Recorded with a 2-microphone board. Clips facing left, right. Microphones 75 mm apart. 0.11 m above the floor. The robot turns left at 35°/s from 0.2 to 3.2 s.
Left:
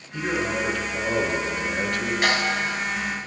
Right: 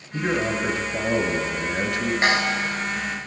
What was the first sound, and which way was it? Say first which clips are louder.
A man speaking: right 2 dB; 20° right (ahead or behind).